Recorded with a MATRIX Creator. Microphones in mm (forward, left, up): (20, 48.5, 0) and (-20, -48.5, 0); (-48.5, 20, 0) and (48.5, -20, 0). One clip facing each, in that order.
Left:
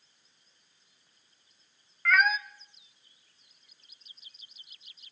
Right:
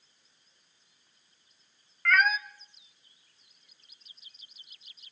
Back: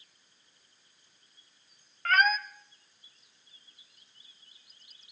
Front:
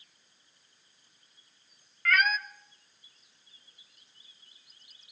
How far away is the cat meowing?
About 0.6 m.